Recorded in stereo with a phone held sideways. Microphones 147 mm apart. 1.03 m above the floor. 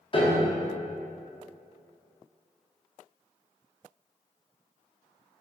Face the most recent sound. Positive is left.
turn(degrees=35)  # may be behind; listen again after turning